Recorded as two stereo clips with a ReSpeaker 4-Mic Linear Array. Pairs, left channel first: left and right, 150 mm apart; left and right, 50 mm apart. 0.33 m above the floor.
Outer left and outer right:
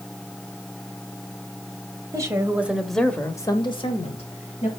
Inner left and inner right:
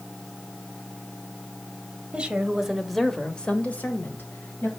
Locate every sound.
2.1 s a woman speaking: 20° right (ahead or behind), 1.5 m; by 4.7 s 50° left (ahead or behind), 1.8 m